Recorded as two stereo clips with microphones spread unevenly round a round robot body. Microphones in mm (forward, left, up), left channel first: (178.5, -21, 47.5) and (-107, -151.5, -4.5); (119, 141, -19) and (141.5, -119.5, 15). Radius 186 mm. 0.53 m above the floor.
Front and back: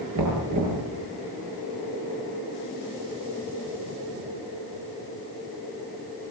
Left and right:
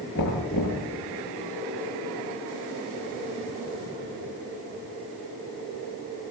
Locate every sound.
0.1 s knocking: 160° left, 7 m